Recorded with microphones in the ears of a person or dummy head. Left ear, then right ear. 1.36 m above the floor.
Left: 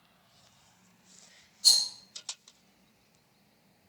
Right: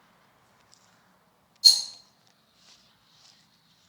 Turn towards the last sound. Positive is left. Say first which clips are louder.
# right 5 dB
turn(degrees=-20)  # may be behind; listen again after turning